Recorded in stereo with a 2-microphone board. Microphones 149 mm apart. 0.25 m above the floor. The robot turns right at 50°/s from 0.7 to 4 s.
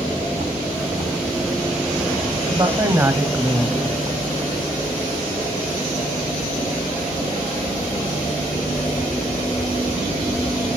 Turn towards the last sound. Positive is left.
turn(degrees=20)